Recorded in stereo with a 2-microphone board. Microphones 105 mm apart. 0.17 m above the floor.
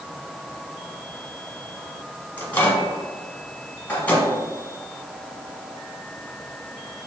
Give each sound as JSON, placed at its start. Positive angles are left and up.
{"t": 2.4, "sound": "a microwave", "side_deg": 15, "distance_m": 1.1}